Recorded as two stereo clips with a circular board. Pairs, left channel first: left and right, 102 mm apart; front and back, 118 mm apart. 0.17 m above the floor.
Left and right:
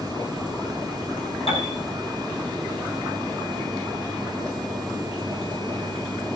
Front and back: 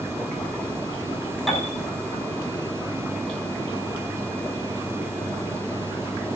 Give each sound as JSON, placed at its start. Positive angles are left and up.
{"t": 1.5, "sound": "a piano", "azimuth_deg": 90, "distance_m": 6.5}